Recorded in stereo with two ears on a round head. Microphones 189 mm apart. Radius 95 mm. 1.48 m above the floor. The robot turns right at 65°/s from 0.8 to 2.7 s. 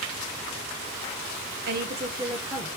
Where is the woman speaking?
55° right, 0.8 m; by 2.7 s 15° left, 0.8 m.